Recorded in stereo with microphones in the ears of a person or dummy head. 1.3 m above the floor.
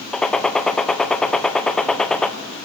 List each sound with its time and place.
0.1 s a gunshot: 5° left (ahead or behind), 0.6 m